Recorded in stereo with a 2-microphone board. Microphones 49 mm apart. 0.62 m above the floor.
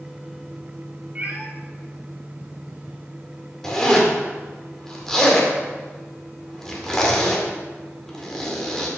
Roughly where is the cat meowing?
Right.